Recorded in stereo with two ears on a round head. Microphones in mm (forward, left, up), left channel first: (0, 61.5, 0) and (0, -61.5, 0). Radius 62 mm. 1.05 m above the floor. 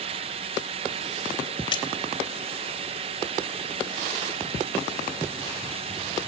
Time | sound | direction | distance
1.7 | a splash | 35° left (ahead or behind) | 3 m